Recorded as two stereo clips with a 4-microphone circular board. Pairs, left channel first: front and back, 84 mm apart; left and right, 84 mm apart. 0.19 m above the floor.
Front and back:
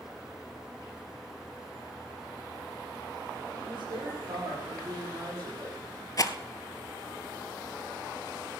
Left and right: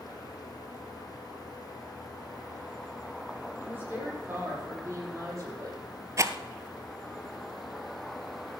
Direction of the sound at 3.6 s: 160° right.